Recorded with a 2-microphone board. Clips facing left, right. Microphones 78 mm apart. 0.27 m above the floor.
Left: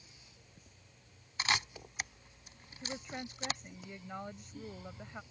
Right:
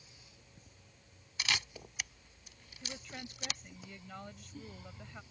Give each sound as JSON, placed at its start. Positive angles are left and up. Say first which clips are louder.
{"t": 1.4, "sound": "a camera shutter", "louder": "left 3 dB", "side_deg": 40}
{"t": 2.8, "sound": "a woman speaking", "louder": "left 4 dB", "side_deg": 25}